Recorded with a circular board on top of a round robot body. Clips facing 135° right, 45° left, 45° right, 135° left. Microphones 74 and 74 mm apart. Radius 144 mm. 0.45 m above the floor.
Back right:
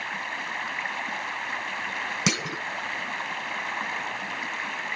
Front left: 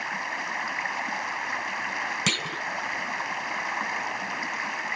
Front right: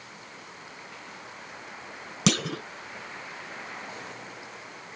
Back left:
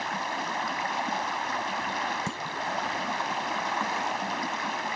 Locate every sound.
0.0 s running water: 130° left
2.3 s a clunk: 60° right